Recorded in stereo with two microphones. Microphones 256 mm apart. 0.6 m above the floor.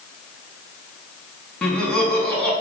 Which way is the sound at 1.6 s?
5° left (ahead or behind).